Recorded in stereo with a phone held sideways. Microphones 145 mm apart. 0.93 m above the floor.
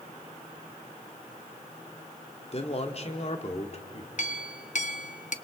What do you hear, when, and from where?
2.5 s a man speaking: 45° left (ahead or behind), 2 m
4.2 s a clink: 60° left (ahead or behind), 0.8 m